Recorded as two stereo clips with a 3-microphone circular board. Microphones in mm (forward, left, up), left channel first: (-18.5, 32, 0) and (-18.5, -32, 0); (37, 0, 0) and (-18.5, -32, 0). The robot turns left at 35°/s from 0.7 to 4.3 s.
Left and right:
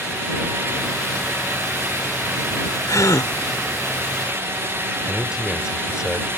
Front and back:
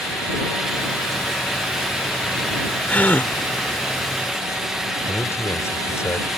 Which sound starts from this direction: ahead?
A man speaking, at 5.1 s.